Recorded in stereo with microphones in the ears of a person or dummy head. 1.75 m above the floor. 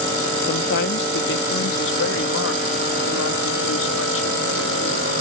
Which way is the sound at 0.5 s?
60° left (ahead or behind).